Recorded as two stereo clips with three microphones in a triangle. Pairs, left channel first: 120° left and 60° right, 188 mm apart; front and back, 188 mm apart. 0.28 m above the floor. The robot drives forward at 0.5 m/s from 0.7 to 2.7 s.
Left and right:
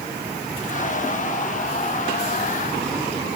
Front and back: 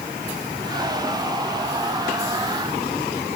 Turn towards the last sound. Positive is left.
No sound to turn to.